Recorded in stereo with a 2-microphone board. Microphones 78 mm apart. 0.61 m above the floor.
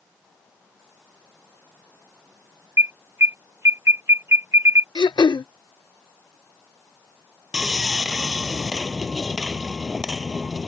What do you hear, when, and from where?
2.8 s an alarm: 40° right (ahead or behind)
5.0 s throat clearing: 75° left (ahead or behind)
7.5 s sawing: 10° right (ahead or behind)